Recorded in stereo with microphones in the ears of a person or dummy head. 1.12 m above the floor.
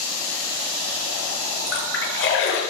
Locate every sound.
1.7 s a splash: 85° left, 6 m